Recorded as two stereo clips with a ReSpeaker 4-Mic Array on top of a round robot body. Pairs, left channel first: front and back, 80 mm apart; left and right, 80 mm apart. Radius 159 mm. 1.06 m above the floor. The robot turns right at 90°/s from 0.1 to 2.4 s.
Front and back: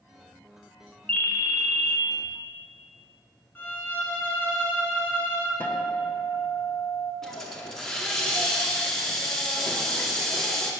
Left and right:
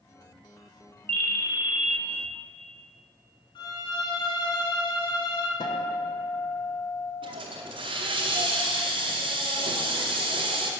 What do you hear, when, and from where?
1.1 s a ringtone: 80° right, 0.8 m; by 2.0 s straight ahead, 0.8 m
3.5 s a violin: 65° left, 1.1 m
5.6 s a guitar: 70° left, 1.0 m
7.2 s a hiss: 90° right, 0.7 m